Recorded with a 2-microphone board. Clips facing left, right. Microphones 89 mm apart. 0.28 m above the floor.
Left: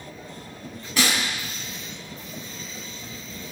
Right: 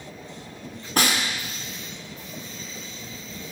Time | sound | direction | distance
1.0 | a snare drum | 50° right (ahead or behind) | 2.0 m